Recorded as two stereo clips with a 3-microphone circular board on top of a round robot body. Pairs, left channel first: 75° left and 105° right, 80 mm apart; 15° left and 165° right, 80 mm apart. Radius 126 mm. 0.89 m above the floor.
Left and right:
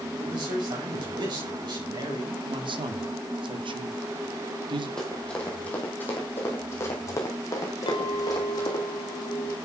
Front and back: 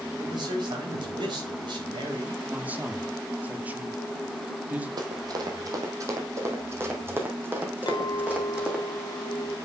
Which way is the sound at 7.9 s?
50° left.